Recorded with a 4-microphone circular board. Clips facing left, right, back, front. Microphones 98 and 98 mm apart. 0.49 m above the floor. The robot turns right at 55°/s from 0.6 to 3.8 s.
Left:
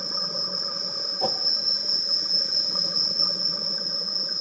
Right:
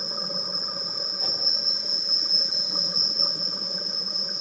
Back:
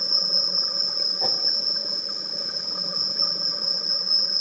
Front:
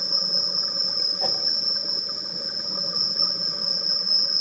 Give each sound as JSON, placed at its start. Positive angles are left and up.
{"t": 0.0, "sound": "an insect", "azimuth_deg": 90, "distance_m": 7.5}
{"t": 1.2, "sound": "a whoosh", "azimuth_deg": 105, "distance_m": 1.3}